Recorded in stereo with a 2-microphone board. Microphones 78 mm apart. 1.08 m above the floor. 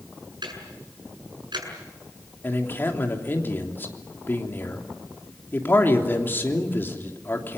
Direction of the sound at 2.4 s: 30° left (ahead or behind).